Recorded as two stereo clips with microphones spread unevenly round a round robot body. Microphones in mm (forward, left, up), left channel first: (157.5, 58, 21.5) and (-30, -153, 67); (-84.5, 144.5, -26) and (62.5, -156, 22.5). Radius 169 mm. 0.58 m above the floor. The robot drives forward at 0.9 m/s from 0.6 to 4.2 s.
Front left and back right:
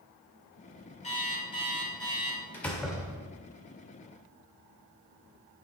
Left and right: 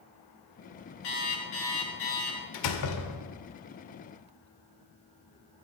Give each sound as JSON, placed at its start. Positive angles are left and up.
{"t": 1.0, "sound": "an alarm clock", "azimuth_deg": 120, "distance_m": 4.5}
{"t": 2.5, "sound": "a door slam", "azimuth_deg": 125, "distance_m": 1.3}